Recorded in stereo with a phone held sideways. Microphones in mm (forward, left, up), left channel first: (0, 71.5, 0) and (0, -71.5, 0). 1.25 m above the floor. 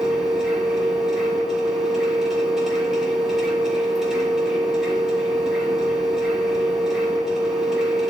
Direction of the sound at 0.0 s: 5° right (ahead or behind).